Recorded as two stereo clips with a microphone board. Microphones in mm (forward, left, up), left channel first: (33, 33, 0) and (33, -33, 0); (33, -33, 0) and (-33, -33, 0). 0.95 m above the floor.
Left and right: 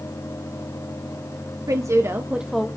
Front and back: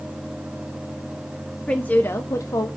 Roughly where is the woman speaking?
Right.